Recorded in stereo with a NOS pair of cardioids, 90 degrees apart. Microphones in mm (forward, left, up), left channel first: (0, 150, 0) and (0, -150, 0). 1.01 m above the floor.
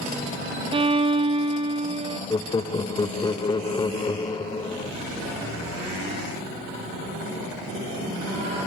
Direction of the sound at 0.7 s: 20° right.